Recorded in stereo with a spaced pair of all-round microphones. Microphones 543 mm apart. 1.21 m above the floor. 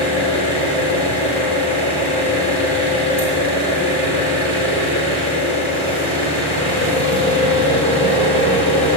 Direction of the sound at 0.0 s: 90° right.